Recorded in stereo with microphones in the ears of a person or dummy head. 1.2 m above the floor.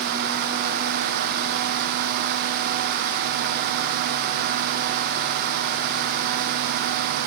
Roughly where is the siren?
No siren in this recording.